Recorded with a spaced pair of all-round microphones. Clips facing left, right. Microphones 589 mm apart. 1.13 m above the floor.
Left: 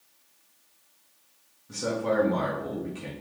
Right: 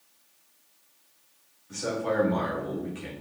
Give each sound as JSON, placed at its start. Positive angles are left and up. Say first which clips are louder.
{"t": 1.7, "sound": "a man speaking", "louder": "left 2 dB", "side_deg": 70, "distance_m": 1.7}